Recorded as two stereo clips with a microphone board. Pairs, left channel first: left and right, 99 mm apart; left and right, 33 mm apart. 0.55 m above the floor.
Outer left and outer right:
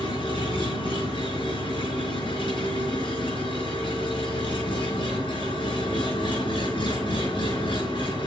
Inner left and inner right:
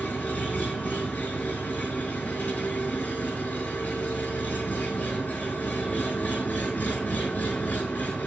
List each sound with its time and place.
0.0 s an engine running: 55° left (ahead or behind), 5.5 m